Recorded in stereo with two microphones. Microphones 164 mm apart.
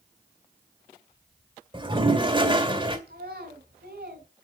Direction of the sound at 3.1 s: 80° right.